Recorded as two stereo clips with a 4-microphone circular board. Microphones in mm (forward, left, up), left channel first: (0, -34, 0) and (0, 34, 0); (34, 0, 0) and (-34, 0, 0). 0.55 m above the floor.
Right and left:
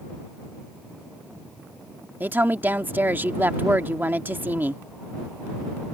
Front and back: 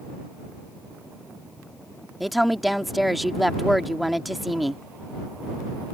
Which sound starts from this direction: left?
A woman speaking, at 2.2 s.